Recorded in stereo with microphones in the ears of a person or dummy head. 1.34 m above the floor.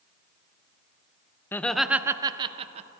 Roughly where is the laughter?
Centre.